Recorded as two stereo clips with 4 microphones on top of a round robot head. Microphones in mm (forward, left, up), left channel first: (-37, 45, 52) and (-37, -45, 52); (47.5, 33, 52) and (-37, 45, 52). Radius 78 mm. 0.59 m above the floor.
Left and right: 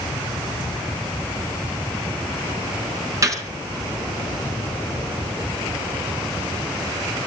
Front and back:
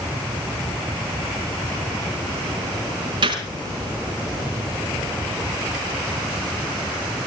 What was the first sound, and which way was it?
A gunshot, 145° right.